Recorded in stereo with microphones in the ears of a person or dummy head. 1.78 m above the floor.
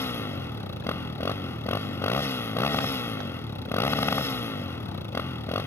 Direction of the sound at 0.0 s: 20° left (ahead or behind).